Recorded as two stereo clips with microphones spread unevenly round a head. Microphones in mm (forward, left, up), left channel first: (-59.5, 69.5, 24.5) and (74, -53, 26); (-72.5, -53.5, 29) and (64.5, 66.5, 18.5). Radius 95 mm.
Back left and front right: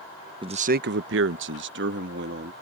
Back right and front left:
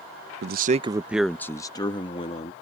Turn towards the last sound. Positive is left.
turn(degrees=-80)